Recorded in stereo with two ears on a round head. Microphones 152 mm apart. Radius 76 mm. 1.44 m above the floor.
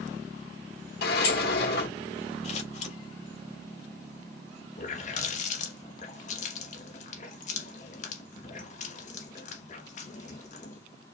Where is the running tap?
45° left (ahead or behind), 1.2 m.